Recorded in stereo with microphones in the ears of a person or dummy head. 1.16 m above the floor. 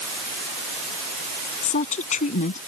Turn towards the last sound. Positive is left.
turn(degrees=40)  # may be behind; listen again after turning